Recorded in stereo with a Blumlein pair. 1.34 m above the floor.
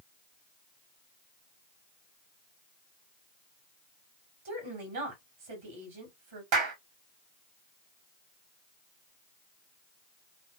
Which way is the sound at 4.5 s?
55° right.